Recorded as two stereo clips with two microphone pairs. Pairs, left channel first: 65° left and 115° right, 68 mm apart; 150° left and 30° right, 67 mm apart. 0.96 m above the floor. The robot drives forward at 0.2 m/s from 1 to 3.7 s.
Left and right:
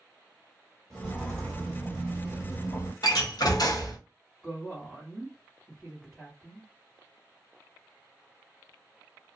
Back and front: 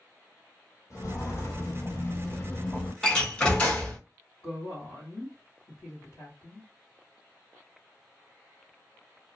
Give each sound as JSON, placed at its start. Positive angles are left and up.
{"t": 0.9, "sound": "footsteps", "azimuth_deg": 135, "distance_m": 1.3}
{"t": 3.0, "sound": "a door slam", "azimuth_deg": 75, "distance_m": 1.0}
{"t": 4.4, "sound": "a woman speaking", "azimuth_deg": 160, "distance_m": 1.3}